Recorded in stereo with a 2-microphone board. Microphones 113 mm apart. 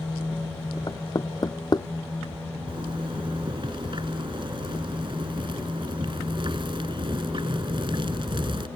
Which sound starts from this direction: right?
A zipper, at 2.7 s.